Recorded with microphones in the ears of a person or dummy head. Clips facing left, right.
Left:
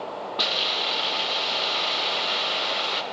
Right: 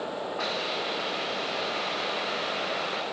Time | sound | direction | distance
0.4 | a hiss | 50° left (ahead or behind) | 0.9 m